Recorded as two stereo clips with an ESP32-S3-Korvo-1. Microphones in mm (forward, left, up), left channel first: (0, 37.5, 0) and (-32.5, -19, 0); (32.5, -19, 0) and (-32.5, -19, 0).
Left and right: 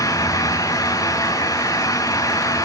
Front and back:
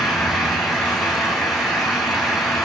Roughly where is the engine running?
Left.